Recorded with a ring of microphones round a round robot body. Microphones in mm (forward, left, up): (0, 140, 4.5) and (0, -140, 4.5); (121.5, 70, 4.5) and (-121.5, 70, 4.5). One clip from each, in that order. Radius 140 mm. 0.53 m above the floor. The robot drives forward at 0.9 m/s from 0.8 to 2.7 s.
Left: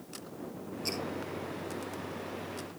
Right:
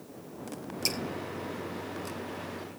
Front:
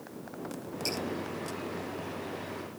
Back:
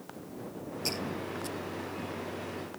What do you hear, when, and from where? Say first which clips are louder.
0.8 s dripping: right 5 dB, even; 85° right, 4 m